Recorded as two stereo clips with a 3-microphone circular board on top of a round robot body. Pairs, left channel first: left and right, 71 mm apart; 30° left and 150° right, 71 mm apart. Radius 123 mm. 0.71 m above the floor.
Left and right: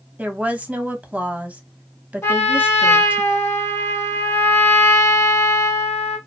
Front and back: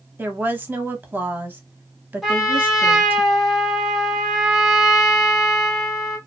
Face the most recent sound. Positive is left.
turn(degrees=125)